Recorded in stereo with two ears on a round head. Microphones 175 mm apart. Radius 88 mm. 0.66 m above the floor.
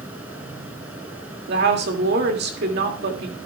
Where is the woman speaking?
55° right (ahead or behind), 1.9 m.